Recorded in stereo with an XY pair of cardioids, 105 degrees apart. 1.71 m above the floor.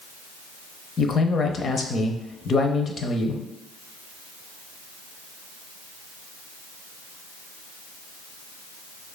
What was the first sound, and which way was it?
A man speaking, 45° left.